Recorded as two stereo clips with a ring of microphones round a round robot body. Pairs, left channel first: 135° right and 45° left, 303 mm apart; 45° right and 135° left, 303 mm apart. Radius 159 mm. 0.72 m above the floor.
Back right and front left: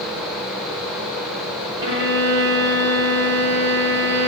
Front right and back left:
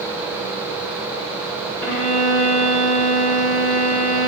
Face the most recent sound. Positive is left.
turn(degrees=5)